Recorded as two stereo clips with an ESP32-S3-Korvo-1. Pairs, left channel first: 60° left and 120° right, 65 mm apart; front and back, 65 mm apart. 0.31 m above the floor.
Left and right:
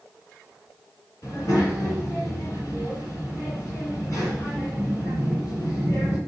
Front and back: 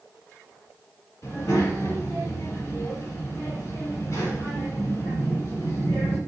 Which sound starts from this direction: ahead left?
A child speaking, at 1.2 s.